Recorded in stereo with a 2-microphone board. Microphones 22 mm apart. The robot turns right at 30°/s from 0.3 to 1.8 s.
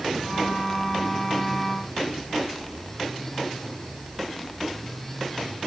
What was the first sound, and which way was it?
Only background noise.